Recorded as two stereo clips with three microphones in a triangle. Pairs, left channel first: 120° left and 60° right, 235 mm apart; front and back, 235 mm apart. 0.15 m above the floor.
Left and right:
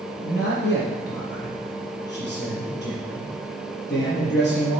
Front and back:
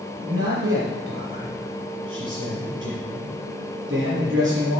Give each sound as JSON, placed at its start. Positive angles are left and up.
{"t": 0.2, "sound": "a man speaking", "azimuth_deg": 155, "distance_m": 4.0}